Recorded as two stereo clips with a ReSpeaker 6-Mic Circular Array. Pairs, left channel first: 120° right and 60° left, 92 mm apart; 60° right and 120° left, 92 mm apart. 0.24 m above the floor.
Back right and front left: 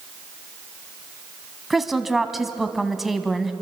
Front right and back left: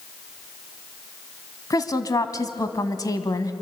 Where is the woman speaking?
25° right, 1.4 m.